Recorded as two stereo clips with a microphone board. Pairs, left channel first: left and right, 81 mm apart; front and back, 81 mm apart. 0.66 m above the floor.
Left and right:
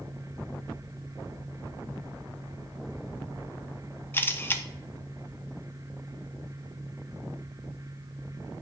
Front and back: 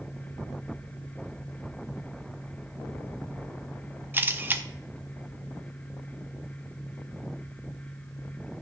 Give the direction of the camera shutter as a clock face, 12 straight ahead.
8 o'clock.